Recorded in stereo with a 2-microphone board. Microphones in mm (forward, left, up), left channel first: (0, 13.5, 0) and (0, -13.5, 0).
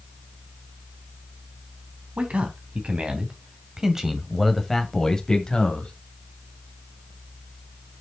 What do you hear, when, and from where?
2.2 s a man speaking: 50° right (ahead or behind), 2.5 m; by 5.9 s 40° left (ahead or behind), 2.0 m